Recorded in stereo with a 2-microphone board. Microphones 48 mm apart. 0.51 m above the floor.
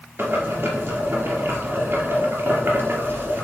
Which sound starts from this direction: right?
Boiling, at 0.2 s.